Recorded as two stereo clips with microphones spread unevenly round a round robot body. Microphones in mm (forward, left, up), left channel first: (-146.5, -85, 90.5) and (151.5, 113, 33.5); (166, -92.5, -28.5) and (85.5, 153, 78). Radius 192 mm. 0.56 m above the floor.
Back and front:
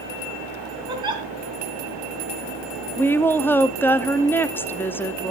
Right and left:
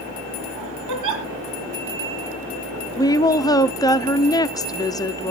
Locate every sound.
0.9 s a giggle: 110° left, 3 m
3.0 s a woman speaking: 55° right, 0.9 m